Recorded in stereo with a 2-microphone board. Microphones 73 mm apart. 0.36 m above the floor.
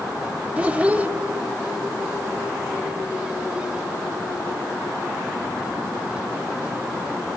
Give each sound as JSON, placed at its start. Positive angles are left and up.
{"t": 0.6, "sound": "a child speaking", "side_deg": -20, "distance_m": 0.7}